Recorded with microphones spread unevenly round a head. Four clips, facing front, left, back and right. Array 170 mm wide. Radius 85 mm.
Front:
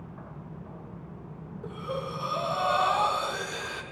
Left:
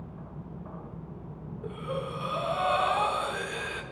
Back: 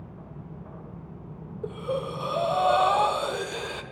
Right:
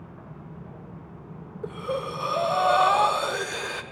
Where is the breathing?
140° right, 0.5 m.